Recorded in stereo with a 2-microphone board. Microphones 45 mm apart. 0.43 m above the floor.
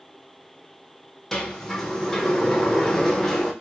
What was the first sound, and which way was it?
A sliding door, 10° left (ahead or behind).